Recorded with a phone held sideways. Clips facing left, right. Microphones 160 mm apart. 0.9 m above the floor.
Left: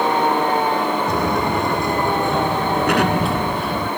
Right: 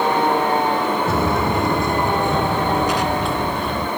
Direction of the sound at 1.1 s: 5° right (ahead or behind).